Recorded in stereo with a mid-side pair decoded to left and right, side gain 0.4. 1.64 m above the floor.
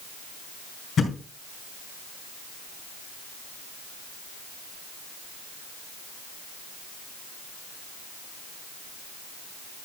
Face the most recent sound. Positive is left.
turn(degrees=55)